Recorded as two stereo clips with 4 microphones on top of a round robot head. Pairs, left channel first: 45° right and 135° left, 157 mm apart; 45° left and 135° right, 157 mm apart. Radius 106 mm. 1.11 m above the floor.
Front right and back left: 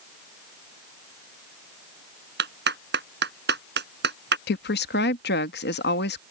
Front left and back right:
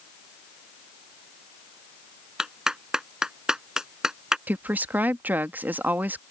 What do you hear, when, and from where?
2.4 s a clap: 140° left
4.5 s a woman speaking: 55° right